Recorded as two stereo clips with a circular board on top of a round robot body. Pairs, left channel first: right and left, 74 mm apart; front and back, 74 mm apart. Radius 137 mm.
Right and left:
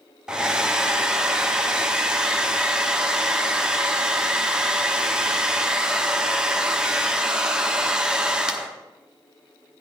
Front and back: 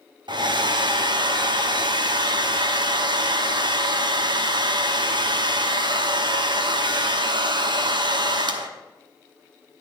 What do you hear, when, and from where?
0.3 s a hair dryer: 170° left, 1.0 m